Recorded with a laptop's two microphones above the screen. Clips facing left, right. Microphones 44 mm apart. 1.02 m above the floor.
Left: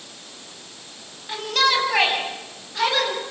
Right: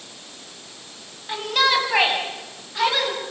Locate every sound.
1.3 s a shout: 10° right (ahead or behind), 9 m; by 3.2 s centre (ahead or behind), 9.5 m